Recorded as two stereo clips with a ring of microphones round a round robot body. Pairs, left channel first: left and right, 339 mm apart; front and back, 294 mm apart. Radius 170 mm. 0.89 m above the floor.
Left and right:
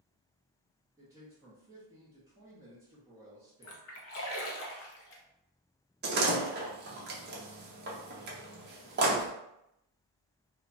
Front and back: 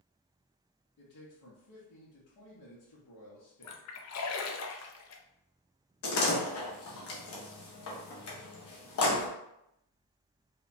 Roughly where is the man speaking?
Ahead.